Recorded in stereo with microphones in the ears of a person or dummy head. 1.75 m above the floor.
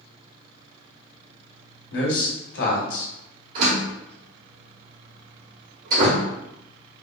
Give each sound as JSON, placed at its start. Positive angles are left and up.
{"t": 1.9, "sound": "a man speaking", "side_deg": 70, "distance_m": 1.4}
{"t": 3.5, "sound": "a door slam", "side_deg": -45, "distance_m": 1.3}